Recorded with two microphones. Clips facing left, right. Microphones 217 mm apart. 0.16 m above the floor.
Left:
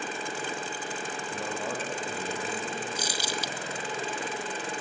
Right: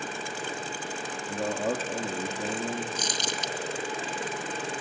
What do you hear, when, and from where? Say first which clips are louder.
1.3 s a man speaking: right 7 dB; 35° right (ahead or behind), 4.5 m
3.0 s crumpling: even; 10° left (ahead or behind), 1.1 m